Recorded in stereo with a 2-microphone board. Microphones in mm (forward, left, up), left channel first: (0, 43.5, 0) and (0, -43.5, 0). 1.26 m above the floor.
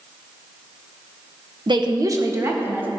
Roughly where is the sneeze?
No sneeze in this recording.